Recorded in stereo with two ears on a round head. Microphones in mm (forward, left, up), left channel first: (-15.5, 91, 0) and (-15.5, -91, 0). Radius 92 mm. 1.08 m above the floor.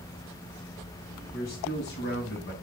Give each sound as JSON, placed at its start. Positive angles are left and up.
{"t": 1.3, "sound": "a man speaking", "side_deg": 50, "distance_m": 9.0}